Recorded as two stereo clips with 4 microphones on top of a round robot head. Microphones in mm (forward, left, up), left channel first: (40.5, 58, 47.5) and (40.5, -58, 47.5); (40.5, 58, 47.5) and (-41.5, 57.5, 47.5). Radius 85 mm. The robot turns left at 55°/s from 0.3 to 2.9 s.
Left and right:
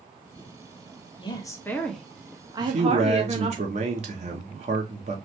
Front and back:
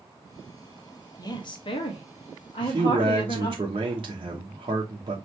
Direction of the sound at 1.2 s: 40° left.